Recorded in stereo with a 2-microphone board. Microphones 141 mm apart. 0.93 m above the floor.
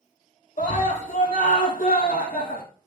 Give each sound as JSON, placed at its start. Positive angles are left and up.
{"t": 0.6, "sound": "a scream", "side_deg": 60, "distance_m": 2.5}